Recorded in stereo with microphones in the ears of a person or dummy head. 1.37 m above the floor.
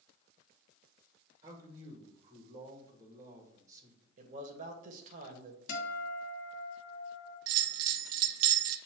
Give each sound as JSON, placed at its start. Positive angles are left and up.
{"t": 1.4, "sound": "a man speaking", "side_deg": -20, "distance_m": 1.8}
{"t": 4.2, "sound": "a man speaking", "side_deg": -45, "distance_m": 1.3}
{"t": 5.7, "sound": "a guitar", "side_deg": 55, "distance_m": 1.5}
{"t": 7.5, "sound": "a bell", "side_deg": -80, "distance_m": 0.6}